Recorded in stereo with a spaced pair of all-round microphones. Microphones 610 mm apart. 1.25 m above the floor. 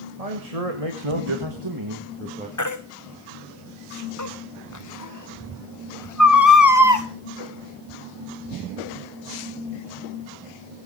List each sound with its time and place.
0.2 s a man speaking: 80° right, 2.5 m; by 2.5 s 10° right (ahead or behind), 2 m
2.6 s a baby crying: 30° left (ahead or behind), 1.1 m